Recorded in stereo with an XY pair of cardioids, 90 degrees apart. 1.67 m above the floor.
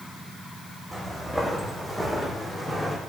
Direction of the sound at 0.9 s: Straight ahead.